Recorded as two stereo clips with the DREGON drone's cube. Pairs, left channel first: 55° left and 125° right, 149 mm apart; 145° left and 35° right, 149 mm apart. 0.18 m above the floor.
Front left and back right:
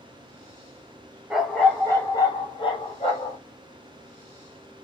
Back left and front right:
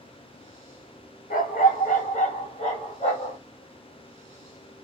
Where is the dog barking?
150° left, 0.8 m; by 3.4 s 100° left, 1.6 m.